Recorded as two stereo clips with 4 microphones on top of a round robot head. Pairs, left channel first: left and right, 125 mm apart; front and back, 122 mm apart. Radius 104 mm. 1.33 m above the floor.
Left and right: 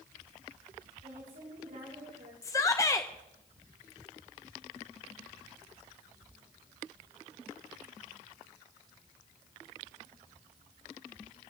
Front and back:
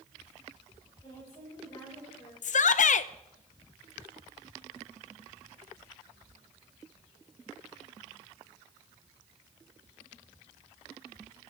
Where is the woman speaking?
70° right, 7.5 m.